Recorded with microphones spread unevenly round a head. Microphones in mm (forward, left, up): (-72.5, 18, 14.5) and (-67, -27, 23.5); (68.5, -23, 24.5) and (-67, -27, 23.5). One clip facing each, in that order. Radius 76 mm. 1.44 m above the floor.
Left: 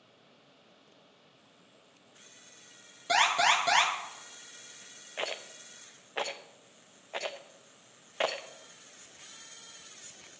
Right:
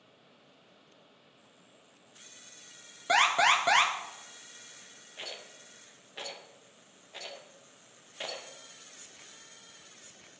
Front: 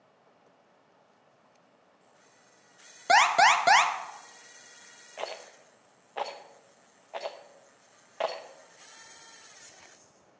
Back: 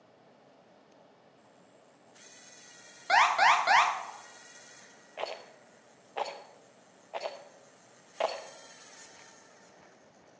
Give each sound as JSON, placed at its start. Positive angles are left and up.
{"t": 3.1, "sound": "an alarm", "azimuth_deg": -10, "distance_m": 1.5}
{"t": 5.2, "sound": "a rattle", "azimuth_deg": 95, "distance_m": 0.7}